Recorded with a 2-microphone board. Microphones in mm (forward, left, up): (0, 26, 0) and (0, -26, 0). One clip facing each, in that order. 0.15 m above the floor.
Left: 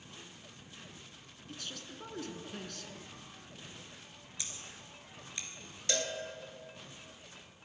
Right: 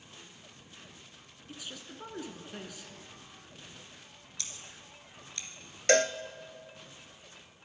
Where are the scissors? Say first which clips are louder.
Even; 15° left (ahead or behind), 2.5 m.